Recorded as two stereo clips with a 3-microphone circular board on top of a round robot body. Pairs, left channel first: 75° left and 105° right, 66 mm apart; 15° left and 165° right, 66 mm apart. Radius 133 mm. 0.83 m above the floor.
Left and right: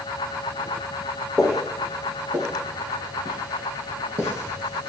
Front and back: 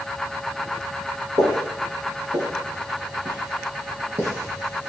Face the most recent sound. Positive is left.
turn(degrees=-120)